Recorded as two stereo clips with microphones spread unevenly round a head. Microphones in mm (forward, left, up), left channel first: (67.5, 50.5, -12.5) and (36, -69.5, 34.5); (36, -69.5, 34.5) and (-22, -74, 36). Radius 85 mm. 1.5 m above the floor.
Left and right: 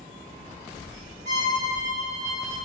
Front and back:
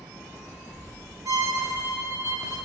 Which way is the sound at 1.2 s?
155° right.